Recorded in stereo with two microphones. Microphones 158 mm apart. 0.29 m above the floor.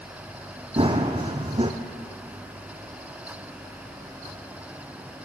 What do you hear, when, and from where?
0.8 s running footsteps: 35° right (ahead or behind), 0.9 m